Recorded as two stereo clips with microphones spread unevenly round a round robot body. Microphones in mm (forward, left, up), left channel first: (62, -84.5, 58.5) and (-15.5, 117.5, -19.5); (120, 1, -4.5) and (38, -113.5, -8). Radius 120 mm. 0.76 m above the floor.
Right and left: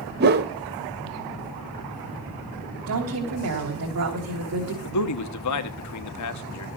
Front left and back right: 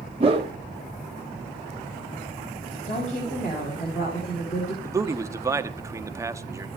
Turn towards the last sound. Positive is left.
turn(degrees=-60)